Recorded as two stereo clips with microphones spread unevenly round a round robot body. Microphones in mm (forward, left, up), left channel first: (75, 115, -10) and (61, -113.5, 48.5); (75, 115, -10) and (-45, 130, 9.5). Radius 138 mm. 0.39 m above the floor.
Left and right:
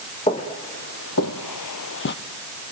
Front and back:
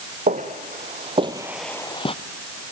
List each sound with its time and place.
0.3 s footsteps: 160° left, 1.9 m; by 2.2 s 35° left, 1.0 m